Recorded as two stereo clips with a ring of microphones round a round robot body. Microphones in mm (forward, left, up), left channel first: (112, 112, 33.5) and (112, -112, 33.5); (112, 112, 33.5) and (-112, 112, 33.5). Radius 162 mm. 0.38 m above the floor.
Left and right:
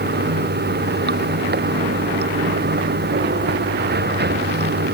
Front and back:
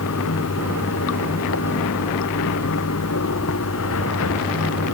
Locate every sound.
0.0 s running water: 50° right